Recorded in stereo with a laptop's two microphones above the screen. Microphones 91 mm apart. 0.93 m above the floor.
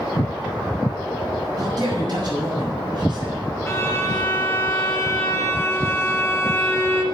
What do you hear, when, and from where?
1.6 s a man speaking: 45° right (ahead or behind), 7 m; by 3.3 s 60° right (ahead or behind), 6.5 m
3.7 s a violin: 30° left (ahead or behind), 1.6 m